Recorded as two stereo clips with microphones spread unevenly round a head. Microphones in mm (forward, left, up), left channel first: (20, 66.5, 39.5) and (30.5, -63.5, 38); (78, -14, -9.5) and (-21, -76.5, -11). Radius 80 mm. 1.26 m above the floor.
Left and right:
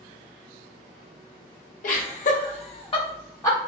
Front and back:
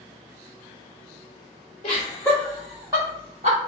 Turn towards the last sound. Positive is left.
turn(degrees=165)